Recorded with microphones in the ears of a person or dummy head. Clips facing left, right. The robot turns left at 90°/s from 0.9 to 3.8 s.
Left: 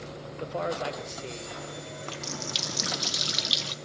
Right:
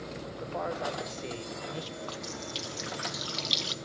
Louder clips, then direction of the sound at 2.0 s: Left 1 dB; 150° left.